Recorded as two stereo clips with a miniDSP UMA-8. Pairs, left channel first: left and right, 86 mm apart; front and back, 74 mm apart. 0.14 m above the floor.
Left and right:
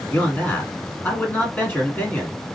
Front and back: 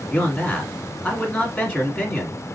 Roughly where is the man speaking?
Ahead left.